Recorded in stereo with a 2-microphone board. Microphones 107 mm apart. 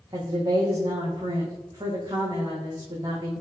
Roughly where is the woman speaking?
Right.